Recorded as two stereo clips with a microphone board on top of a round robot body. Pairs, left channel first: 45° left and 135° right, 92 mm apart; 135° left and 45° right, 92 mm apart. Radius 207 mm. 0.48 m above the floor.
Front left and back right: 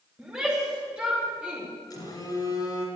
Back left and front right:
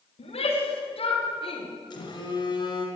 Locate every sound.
0.2 s a shout: 145° left, 3.5 m
1.9 s a phone buzzing: 95° left, 3 m